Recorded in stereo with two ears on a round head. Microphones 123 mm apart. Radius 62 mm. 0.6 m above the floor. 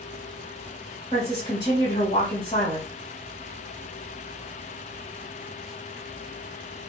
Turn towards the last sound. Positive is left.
turn(degrees=30)  # may be behind; listen again after turning